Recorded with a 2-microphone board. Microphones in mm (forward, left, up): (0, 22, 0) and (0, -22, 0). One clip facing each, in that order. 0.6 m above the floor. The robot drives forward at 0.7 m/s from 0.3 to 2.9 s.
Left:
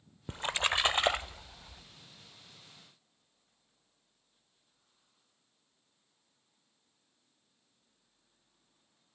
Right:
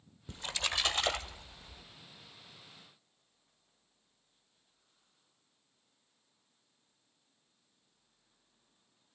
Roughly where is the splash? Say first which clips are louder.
Left 5 dB; left.